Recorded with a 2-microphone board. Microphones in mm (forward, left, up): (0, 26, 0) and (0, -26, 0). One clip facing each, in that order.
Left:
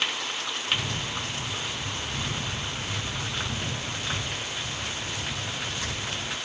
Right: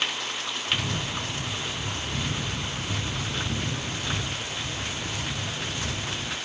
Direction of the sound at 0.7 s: 75° right (ahead or behind).